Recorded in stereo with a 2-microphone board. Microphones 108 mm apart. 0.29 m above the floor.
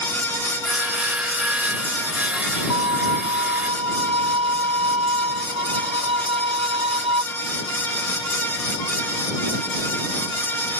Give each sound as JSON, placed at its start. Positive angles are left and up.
{"t": 0.6, "sound": "sawing", "side_deg": -10}
{"t": 2.7, "sound": "a violin", "side_deg": -60}